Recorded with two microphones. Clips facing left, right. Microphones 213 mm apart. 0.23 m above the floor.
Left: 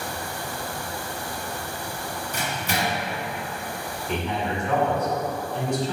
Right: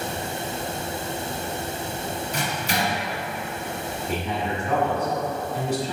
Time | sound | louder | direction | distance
2.3 | a microwave | even | 55° left (ahead or behind) | 1.7 m
4.1 | a man speaking | left 1 dB | 10° right (ahead or behind) | 1.7 m